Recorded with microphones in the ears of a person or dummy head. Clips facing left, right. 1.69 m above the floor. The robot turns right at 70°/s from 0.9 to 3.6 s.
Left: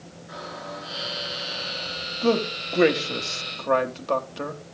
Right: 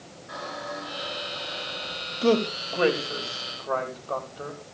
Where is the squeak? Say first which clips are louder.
Right 1 dB; 155° left, 8.5 m; by 2.1 s 120° right, 8.5 m.